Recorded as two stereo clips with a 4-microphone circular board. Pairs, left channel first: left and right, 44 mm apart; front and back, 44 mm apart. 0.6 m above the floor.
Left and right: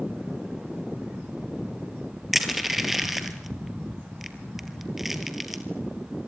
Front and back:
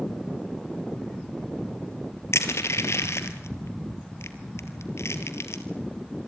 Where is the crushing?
5° right, 2 m.